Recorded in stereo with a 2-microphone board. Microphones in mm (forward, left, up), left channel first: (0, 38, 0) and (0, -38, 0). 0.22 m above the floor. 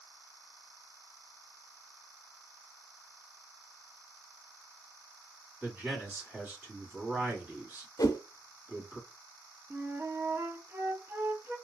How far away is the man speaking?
About 1.8 m.